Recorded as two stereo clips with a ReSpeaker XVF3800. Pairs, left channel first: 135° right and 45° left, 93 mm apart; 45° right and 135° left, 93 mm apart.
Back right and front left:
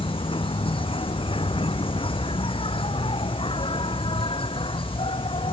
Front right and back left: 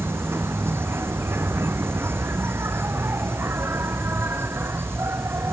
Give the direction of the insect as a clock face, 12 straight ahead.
5 o'clock.